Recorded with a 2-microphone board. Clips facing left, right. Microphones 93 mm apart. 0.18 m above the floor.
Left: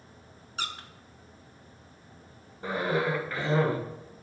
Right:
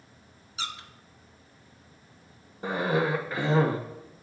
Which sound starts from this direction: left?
A squeak, at 0.6 s.